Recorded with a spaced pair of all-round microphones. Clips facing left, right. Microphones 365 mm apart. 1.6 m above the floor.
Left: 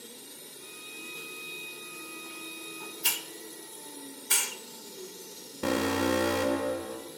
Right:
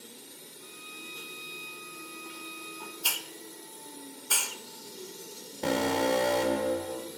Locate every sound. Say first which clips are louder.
0.6 s a violin: left 1 dB; 55° right (ahead or behind), 1.7 m
3.0 s a hiss: left 1 dB; 35° left (ahead or behind), 0.7 m
5.6 s an alarm: even; 15° left (ahead or behind), 2 m